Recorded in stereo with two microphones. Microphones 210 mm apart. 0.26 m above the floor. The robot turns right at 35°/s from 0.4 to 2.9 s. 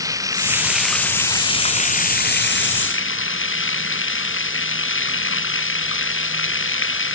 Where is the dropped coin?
I don't hear a dropped coin.